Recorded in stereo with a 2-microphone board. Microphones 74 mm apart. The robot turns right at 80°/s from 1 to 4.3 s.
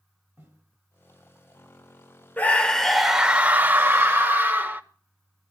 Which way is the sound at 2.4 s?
135° left.